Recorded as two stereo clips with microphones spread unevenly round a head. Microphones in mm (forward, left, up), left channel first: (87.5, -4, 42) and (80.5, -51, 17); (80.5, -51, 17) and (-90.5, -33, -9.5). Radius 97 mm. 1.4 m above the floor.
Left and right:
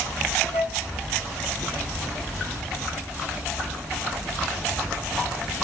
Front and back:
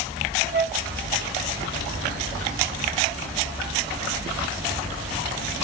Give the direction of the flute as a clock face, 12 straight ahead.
8 o'clock.